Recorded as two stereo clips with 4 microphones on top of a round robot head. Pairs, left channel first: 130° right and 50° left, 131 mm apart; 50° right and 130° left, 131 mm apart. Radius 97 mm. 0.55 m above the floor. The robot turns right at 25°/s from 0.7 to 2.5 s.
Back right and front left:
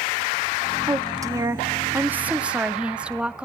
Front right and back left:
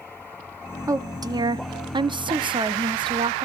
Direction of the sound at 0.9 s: 85° left.